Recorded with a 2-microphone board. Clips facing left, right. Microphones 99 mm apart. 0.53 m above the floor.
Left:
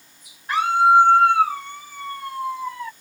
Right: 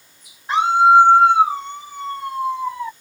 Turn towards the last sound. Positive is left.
turn(degrees=-25)  # may be behind; listen again after turning